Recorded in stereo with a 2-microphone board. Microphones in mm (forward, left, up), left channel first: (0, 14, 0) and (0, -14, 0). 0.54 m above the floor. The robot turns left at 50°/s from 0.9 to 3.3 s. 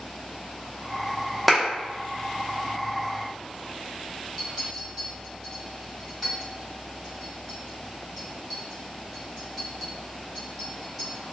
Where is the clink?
20° right (ahead or behind), 1.8 m.